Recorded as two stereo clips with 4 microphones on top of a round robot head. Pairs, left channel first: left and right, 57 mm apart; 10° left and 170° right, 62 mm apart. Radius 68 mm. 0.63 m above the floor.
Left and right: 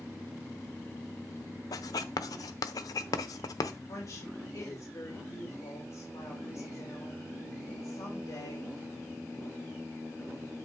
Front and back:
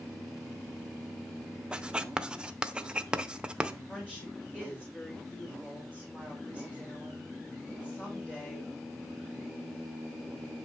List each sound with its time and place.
1.7 s writing: 115° left, 0.7 m
3.9 s a woman speaking: 75° left, 3 m